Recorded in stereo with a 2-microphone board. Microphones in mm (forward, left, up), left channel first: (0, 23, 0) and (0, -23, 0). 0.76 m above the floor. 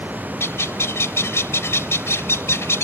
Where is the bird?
75° left (ahead or behind).